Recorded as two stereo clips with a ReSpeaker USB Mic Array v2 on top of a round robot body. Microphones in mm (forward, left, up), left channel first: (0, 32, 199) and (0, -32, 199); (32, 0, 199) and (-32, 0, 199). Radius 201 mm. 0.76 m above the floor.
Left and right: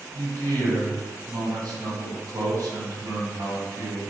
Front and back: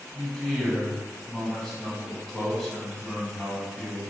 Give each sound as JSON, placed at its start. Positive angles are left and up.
{"t": 0.1, "sound": "a man speaking", "azimuth_deg": -80, "distance_m": 1.5}